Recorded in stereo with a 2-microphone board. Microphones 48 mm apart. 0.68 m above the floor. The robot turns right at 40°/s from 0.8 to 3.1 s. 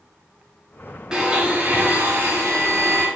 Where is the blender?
165° right, 3 m; by 3.1 s 90° right, 3 m.